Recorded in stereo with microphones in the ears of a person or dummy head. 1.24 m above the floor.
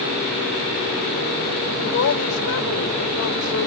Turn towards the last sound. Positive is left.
turn(degrees=65)  # may be behind; listen again after turning